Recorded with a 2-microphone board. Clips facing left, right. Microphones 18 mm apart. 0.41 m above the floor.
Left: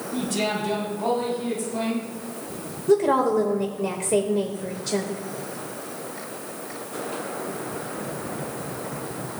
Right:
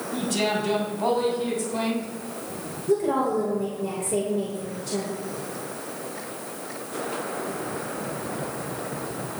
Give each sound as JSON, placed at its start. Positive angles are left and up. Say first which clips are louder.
{"t": 0.1, "sound": "a man speaking", "louder": "right 1 dB", "side_deg": -10, "distance_m": 4.0}
{"t": 2.9, "sound": "a woman speaking", "louder": "left 4 dB", "side_deg": 45, "distance_m": 1.3}